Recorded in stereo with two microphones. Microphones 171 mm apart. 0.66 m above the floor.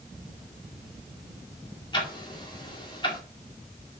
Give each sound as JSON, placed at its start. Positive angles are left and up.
{"t": 1.9, "sound": "ticking", "side_deg": 30, "distance_m": 1.9}